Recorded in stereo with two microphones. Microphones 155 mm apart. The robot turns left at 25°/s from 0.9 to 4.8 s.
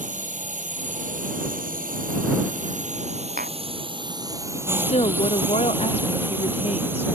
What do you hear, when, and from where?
0.0 s a drone: 70° right; by 7.2 s 165° right
3.4 s tapping: 65° right (ahead or behind); by 3.6 s 70° right (ahead or behind)
4.8 s a woman speaking: 45° left (ahead or behind); by 7.0 s 40° left (ahead or behind)